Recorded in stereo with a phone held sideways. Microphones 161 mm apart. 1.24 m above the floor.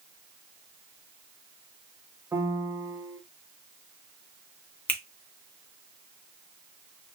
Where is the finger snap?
10° left (ahead or behind), 0.6 m.